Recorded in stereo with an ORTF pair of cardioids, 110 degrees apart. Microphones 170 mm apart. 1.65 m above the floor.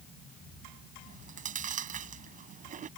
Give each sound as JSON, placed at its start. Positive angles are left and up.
{"t": 1.1, "sound": "chewing", "azimuth_deg": -50}